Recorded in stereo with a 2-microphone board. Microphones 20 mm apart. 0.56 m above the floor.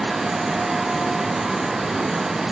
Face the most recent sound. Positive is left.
No sound to turn to.